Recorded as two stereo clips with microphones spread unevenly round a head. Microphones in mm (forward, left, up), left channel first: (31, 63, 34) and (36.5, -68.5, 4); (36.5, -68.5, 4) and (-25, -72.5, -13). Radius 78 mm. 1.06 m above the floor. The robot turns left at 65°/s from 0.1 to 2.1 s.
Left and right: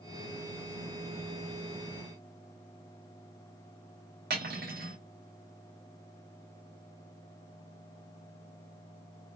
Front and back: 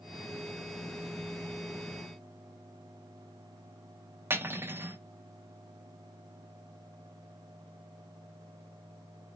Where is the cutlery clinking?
120° right, 1.1 m.